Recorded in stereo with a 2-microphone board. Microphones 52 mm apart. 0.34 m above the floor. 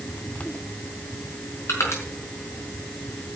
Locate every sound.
1.7 s crushing: 65° left (ahead or behind), 5 m